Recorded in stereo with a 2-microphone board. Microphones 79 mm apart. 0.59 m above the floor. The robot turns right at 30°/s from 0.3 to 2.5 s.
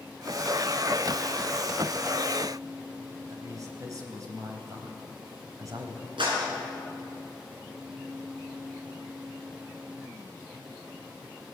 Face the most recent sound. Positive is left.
turn(degrees=-85)